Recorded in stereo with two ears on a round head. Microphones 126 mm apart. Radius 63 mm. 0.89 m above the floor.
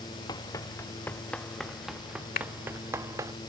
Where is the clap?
70° left (ahead or behind).